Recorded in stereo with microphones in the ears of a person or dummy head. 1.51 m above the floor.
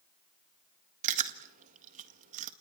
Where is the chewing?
45° right (ahead or behind), 1.7 m.